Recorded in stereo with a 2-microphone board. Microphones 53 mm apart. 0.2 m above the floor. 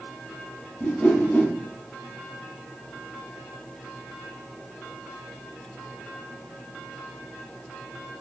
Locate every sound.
0.8 s a whoosh: 20° left (ahead or behind), 1.2 m